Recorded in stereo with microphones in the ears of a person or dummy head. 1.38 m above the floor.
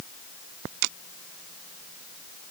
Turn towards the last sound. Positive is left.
No sound to turn to.